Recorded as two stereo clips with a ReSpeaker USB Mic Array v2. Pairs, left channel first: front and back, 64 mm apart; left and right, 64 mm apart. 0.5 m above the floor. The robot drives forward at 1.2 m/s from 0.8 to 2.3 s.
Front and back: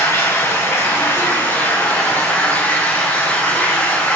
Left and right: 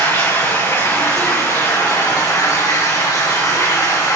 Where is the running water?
50° left, 5.5 m; by 4.2 s 70° left, 4.5 m.